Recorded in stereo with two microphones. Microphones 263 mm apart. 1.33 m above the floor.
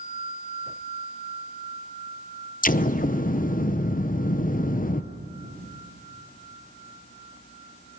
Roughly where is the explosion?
Left.